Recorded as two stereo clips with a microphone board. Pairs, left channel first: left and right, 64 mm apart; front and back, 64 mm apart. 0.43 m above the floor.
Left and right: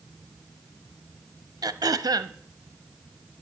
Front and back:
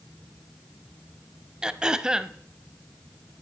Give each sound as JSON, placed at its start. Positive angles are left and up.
{"t": 1.6, "sound": "throat clearing", "azimuth_deg": -105, "distance_m": 0.5}